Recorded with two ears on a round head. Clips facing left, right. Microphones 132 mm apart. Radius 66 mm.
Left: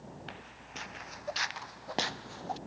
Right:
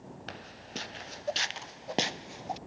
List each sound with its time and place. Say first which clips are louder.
0.3 s footsteps: right 4 dB; 50° right (ahead or behind); by 2.6 s 20° right (ahead or behind)